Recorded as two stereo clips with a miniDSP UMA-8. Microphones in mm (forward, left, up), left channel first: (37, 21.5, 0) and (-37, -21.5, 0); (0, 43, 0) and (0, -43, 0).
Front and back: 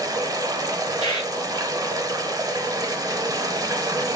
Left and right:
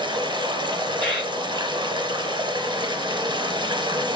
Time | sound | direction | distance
0.0 | running water | 110° right | 0.8 m
1.0 | a bird | 5° left | 3 m